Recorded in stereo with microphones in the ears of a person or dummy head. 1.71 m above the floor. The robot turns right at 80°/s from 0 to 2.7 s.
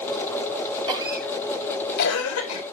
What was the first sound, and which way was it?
A cough, 25° right (ahead or behind).